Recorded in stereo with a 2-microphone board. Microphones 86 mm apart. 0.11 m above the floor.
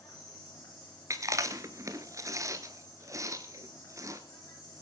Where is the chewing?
40° right (ahead or behind), 1.2 m.